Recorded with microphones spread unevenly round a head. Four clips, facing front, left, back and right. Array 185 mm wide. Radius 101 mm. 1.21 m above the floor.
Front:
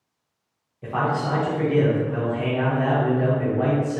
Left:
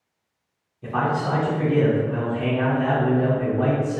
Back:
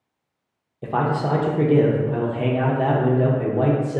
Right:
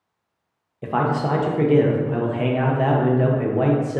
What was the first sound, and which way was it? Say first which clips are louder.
A man speaking: right 2 dB, back 2 dB; 140° right.